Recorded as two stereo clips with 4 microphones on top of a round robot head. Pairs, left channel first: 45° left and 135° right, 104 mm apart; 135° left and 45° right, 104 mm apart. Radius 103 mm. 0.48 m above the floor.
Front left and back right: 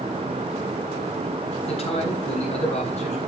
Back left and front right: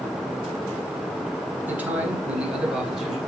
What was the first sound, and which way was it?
A man speaking, 30° left.